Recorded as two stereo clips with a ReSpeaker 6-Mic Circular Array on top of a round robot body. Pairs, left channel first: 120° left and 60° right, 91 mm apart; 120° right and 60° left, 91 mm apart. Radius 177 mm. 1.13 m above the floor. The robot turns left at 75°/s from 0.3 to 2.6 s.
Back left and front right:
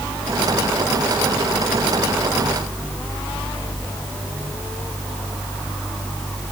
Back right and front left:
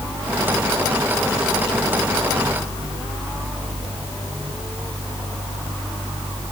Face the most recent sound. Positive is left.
No sound to turn to.